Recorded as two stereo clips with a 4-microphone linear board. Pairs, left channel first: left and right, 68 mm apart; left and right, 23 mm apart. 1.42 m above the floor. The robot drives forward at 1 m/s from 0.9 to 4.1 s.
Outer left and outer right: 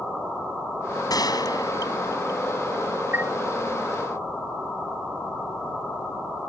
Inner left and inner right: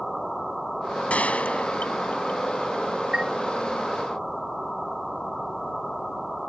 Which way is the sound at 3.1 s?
30° right (ahead or behind).